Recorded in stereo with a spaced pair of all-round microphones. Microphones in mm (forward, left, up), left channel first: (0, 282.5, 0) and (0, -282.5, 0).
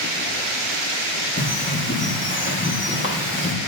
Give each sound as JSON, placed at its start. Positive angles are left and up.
{"t": 1.4, "sound": "a bird", "side_deg": 20, "distance_m": 1.2}